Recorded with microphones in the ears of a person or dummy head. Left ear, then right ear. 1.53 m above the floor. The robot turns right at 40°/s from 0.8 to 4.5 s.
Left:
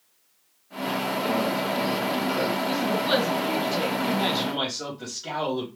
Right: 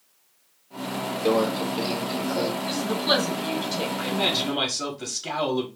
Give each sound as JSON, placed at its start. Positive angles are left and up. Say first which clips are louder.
{"t": 1.2, "sound": "a microwave", "louder": "right 6 dB", "azimuth_deg": -55, "distance_m": 1.1}
{"t": 2.6, "sound": "a woman speaking", "louder": "even", "azimuth_deg": -40, "distance_m": 1.6}
{"t": 4.0, "sound": "a man speaking", "louder": "right 1 dB", "side_deg": -35, "distance_m": 1.2}